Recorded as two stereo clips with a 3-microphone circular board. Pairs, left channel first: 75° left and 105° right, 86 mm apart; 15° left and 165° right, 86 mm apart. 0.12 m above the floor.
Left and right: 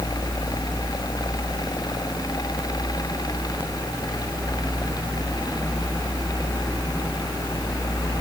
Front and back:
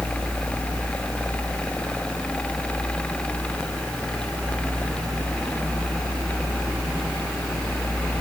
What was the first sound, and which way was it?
Only background noise.